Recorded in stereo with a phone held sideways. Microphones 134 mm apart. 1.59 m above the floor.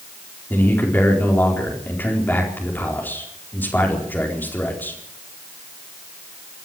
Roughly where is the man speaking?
Centre.